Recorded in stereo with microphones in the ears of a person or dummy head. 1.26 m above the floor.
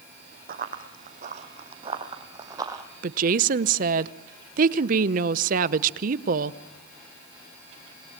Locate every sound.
0.5 s running footsteps: 50° right (ahead or behind), 3.5 m; by 2.8 s 15° right (ahead or behind), 3 m
3.0 s a woman speaking: 45° right (ahead or behind), 0.8 m